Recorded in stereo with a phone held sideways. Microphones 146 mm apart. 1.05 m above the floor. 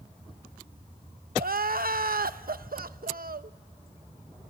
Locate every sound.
1.4 s crying: 80° right, 0.8 m